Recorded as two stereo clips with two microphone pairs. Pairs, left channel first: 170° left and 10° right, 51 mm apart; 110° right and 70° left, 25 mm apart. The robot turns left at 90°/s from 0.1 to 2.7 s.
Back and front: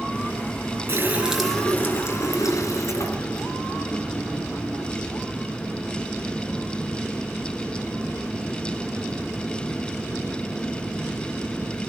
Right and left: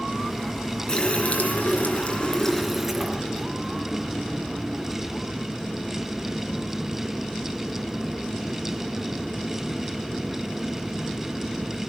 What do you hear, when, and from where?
0.9 s a running tap: 50° right, 3.5 m; by 5.1 s 145° left, 3.5 m